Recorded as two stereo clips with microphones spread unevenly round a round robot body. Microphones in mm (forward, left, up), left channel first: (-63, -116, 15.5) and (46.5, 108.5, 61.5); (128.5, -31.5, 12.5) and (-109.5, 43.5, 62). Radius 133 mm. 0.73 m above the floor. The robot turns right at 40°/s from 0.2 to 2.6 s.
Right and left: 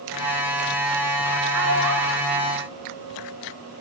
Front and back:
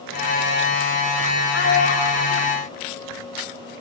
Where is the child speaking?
25° left, 3 m; by 2.5 s 65° left, 3 m.